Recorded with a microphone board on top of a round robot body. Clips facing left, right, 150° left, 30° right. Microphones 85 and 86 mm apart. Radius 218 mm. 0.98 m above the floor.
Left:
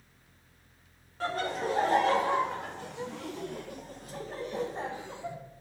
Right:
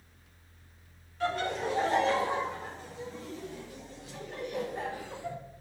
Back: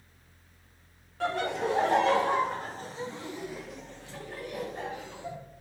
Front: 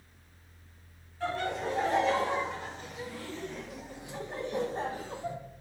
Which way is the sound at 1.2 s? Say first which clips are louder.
Right 1 dB, back 3 dB; 140° left.